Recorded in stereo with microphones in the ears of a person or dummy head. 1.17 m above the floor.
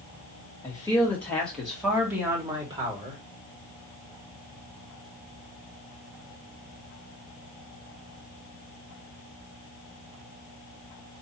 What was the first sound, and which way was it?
A man speaking, 20° left (ahead or behind).